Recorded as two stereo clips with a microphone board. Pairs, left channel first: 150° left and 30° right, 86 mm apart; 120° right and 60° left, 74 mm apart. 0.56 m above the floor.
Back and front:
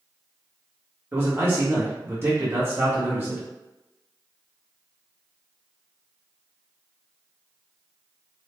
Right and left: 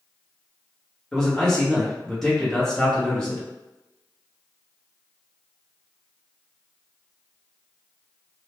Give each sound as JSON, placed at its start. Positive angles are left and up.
{"t": 1.1, "sound": "a man speaking", "azimuth_deg": -45, "distance_m": 1.0}